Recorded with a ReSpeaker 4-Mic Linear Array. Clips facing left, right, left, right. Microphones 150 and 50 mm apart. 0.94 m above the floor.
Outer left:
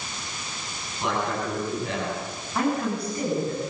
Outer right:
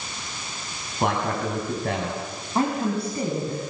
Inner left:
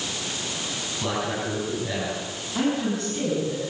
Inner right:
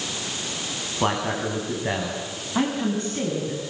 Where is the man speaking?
60° right (ahead or behind), 7.5 m.